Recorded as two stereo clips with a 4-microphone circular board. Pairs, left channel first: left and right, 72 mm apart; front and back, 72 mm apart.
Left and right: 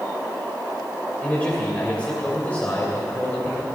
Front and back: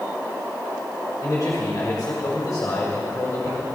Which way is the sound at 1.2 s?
25° left.